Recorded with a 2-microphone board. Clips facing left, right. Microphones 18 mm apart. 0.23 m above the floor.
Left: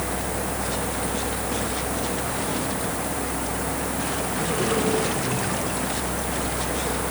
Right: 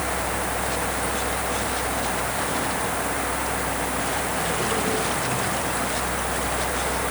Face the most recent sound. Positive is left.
No sound to turn to.